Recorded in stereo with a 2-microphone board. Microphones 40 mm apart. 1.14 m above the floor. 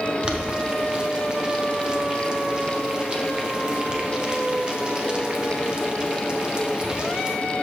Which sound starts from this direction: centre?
Boiling, at 0.2 s.